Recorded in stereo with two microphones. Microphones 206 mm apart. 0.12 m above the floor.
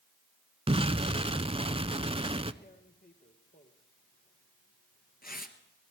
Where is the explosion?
30° right (ahead or behind), 0.6 m.